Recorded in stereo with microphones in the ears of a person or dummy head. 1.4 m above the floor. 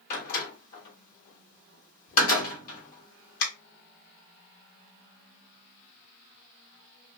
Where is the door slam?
45° left (ahead or behind), 1.3 m.